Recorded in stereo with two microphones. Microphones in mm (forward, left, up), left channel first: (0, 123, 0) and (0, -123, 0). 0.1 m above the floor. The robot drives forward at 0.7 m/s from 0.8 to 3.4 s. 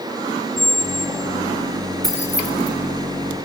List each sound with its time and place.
0.6 s a squeak: 10° right (ahead or behind), 2 m; by 1.4 s 15° right (ahead or behind), 1.7 m
2.0 s keys jangling: 40° left (ahead or behind), 6 m; by 2.7 s 45° left (ahead or behind), 5.5 m